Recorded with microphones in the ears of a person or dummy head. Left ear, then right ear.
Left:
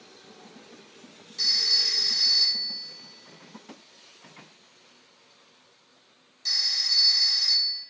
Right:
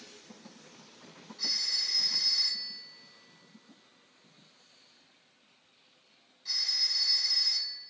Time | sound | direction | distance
1.4 | a phone ringing | 85° left | 5 m